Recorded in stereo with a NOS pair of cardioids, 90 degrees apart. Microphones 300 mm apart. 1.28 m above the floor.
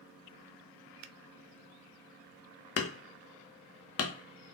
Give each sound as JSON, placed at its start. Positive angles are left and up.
{"t": 1.0, "sound": "a finger snap", "azimuth_deg": -65, "distance_m": 0.6}
{"t": 2.8, "sound": "hammering", "azimuth_deg": 50, "distance_m": 0.9}